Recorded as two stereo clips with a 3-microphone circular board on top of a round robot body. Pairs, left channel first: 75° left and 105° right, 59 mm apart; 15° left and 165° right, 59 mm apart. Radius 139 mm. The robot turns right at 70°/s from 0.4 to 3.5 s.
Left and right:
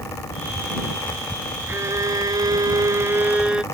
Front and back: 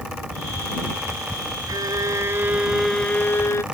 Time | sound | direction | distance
1.7 | a violin | 160° right | ?